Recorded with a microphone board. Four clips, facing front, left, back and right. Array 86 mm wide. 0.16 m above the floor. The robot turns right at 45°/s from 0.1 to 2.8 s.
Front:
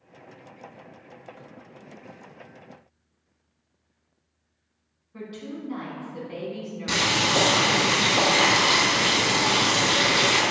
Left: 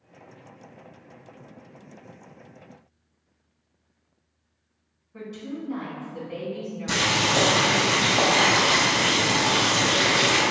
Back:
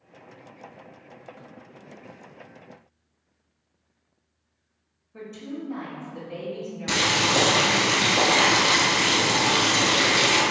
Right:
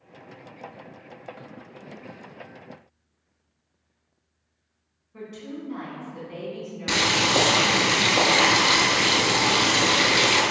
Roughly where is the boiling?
Right.